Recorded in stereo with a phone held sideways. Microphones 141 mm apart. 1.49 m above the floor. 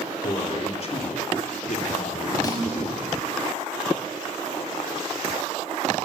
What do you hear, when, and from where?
0.2 s a man speaking: 45° left (ahead or behind), 4 m; by 3.1 s 70° left (ahead or behind), 3 m
2.4 s a snare drum: 25° left (ahead or behind), 7 m